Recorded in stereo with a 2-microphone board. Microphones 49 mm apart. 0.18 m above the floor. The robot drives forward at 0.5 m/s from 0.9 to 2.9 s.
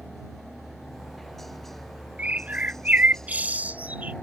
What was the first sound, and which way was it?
A helicopter, 5° left (ahead or behind).